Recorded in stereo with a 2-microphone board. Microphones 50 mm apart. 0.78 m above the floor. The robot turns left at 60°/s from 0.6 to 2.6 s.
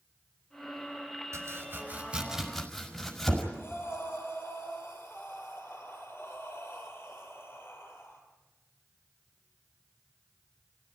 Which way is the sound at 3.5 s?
50° left (ahead or behind).